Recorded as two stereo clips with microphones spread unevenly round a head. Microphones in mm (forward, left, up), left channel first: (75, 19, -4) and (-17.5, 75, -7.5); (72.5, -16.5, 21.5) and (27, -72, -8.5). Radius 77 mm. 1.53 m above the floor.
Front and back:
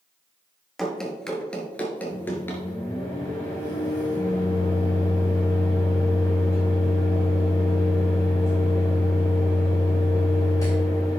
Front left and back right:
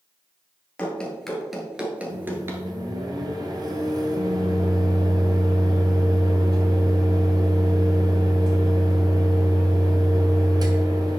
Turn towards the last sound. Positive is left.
turn(degrees=-100)